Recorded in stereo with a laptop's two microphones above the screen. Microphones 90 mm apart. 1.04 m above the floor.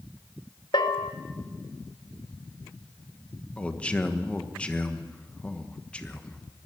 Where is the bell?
55° left (ahead or behind), 1.8 m.